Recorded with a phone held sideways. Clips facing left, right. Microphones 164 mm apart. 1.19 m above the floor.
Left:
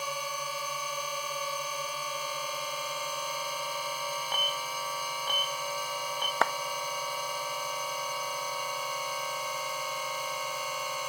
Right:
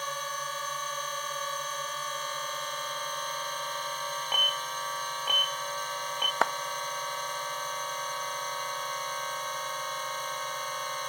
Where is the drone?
10° left (ahead or behind).